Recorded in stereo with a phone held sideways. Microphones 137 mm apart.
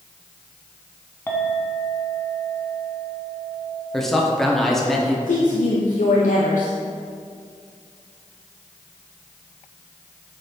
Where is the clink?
15° left (ahead or behind), 1.1 m.